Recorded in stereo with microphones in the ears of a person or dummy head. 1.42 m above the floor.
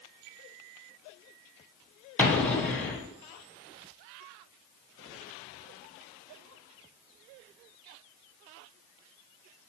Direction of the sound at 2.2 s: 10° left (ahead or behind).